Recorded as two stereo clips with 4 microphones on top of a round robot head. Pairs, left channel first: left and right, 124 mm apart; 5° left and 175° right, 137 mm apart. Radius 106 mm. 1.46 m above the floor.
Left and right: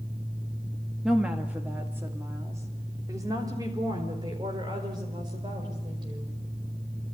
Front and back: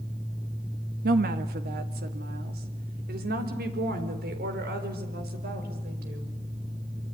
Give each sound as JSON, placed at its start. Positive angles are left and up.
{"t": 1.0, "sound": "a woman speaking", "azimuth_deg": -175, "distance_m": 1.8}